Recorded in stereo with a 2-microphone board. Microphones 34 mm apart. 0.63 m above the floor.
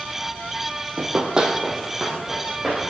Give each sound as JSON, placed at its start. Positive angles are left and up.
{"t": 1.0, "sound": "running footsteps", "side_deg": -40, "distance_m": 0.7}